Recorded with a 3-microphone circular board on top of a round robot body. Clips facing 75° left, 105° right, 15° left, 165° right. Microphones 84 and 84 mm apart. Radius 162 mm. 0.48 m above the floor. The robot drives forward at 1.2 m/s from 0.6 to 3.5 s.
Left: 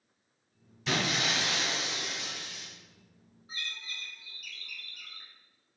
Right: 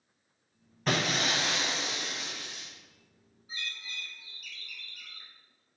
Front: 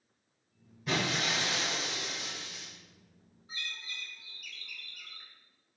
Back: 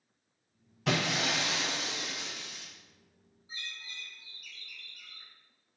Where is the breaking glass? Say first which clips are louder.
Right 2 dB, back 2 dB; 150° right, 1.1 m; by 2.7 s 170° right, 3 m.